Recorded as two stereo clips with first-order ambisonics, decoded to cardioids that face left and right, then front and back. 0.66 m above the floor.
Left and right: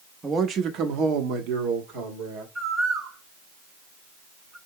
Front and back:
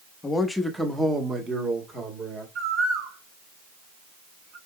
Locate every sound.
0.2 s a man speaking: 35° right, 0.7 m; by 2.5 s 115° right, 2.5 m
2.5 s a bird: 150° right, 1.4 m